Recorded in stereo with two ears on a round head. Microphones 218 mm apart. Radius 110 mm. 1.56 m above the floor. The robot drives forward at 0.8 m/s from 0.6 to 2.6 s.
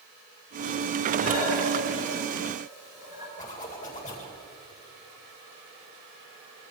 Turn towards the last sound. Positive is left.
turn(degrees=30)  # may be behind; listen again after turning